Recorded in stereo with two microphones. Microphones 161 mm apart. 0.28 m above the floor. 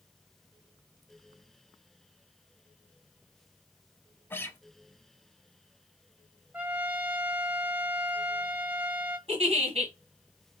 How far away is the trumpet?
About 1.0 m.